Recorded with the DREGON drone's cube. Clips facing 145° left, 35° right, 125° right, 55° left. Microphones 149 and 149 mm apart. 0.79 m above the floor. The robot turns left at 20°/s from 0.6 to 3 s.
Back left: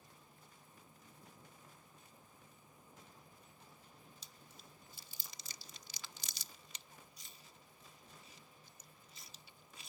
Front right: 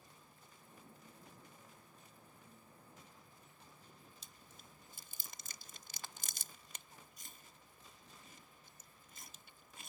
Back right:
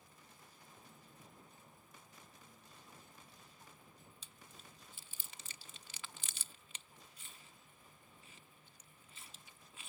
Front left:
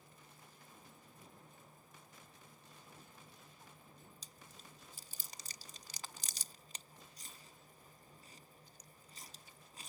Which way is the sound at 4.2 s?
5° left.